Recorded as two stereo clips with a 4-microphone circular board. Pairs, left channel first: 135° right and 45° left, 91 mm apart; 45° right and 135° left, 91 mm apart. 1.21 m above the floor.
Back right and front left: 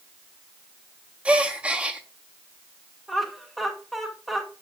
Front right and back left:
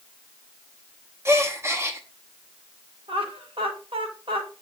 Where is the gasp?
110° left, 0.7 m.